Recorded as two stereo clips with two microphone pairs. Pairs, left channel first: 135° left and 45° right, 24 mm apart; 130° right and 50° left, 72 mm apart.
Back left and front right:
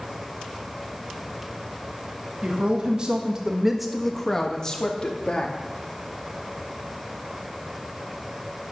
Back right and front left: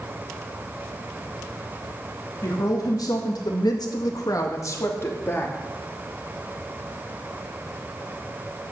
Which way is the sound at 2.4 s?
90° right.